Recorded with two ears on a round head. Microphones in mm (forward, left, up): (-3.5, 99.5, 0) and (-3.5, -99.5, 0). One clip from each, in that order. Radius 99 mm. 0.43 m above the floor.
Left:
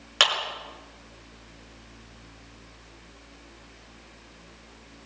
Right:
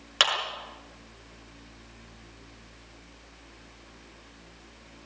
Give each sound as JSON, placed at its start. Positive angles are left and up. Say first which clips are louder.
{"t": 0.2, "sound": "a clap", "louder": "left 2 dB", "side_deg": 0, "distance_m": 5.5}